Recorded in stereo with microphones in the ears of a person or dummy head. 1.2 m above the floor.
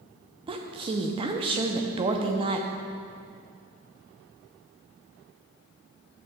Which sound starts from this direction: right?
A woman speaking, at 0.5 s.